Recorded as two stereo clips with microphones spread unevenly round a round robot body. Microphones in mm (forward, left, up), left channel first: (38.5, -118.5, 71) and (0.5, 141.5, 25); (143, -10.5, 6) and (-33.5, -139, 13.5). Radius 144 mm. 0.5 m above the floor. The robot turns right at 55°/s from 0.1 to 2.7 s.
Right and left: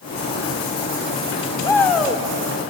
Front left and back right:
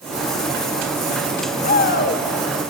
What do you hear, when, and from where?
1.6 s a shout: straight ahead, 1.5 m; by 2.2 s 30° left, 1.5 m